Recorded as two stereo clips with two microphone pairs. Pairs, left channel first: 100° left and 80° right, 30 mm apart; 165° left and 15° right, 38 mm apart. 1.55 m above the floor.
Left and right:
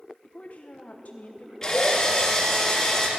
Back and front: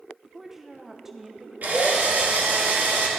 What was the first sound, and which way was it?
A woman speaking, 65° left.